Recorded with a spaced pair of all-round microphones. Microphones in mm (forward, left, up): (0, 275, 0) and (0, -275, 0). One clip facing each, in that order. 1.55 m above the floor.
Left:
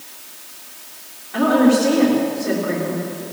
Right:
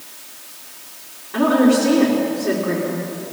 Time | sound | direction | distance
1.3 | a woman speaking | 5° left (ahead or behind) | 4.5 m